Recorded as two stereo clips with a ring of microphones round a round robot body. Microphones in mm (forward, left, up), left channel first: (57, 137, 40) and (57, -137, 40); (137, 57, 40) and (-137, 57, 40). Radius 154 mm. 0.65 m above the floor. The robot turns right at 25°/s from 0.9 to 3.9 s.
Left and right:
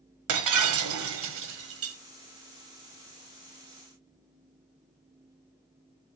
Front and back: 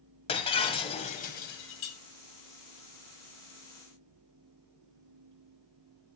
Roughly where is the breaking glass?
Right.